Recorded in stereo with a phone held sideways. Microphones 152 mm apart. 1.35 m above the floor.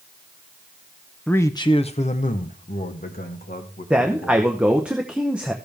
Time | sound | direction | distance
1.3 | a man speaking | 5° left (ahead or behind) | 0.6 m
3.9 | a man speaking | 5° right (ahead or behind) | 0.8 m